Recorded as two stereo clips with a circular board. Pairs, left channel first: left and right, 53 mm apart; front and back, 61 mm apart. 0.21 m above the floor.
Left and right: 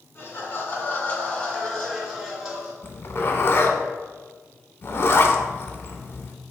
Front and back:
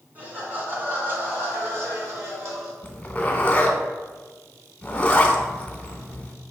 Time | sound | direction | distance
0.1 | laughter | 120° left | 1.7 m
2.8 | a zipper | 60° left | 0.6 m